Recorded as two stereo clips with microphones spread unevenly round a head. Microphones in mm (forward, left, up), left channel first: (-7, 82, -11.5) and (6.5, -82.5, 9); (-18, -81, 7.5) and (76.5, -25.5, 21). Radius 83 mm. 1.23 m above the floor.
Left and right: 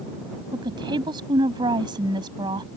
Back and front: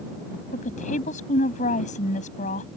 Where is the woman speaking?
150° right.